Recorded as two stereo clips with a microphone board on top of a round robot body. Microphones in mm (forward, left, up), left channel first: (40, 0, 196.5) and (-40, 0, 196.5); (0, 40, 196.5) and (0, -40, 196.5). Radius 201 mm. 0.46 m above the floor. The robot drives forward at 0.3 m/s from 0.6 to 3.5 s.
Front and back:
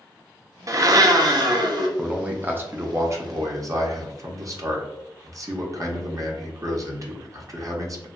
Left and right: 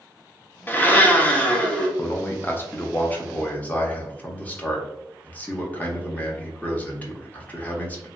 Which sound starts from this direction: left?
A man speaking, at 2.0 s.